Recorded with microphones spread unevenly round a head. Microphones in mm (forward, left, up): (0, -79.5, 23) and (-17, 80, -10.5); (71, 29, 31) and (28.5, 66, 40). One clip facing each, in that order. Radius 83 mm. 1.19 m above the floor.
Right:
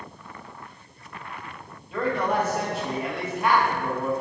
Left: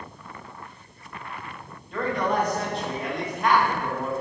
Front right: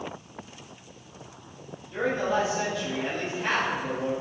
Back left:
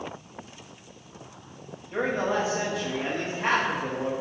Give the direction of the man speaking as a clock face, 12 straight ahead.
6 o'clock.